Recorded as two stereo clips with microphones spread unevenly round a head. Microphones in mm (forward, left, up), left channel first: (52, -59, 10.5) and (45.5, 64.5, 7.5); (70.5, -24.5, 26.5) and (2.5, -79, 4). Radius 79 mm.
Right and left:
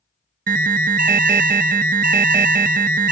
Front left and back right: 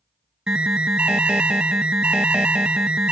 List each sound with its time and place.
0.5 s an alarm: 135° left